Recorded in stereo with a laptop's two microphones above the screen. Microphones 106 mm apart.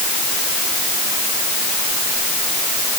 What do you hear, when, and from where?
Only background noise.